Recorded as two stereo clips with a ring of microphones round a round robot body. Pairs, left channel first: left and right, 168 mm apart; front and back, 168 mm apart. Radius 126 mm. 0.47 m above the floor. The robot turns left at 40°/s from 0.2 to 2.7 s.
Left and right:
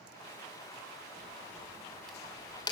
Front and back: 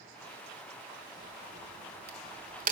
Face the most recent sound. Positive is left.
turn(degrees=155)